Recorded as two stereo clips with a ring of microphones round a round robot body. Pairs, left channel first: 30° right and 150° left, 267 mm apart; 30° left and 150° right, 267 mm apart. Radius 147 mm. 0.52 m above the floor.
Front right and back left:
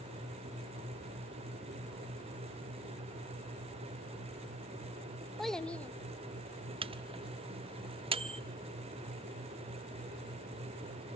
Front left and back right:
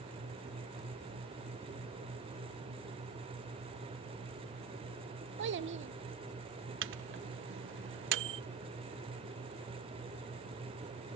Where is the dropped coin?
I don't hear a dropped coin.